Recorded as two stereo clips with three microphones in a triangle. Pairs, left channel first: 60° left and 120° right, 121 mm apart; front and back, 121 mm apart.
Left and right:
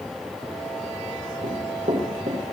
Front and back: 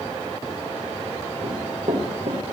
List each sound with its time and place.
1.4 s running footsteps: 145° right, 9.5 m